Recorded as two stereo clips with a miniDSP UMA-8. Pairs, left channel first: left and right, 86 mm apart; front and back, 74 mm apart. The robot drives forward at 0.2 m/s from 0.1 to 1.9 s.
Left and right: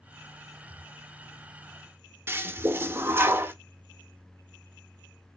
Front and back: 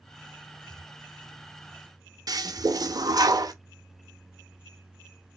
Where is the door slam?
I don't hear a door slam.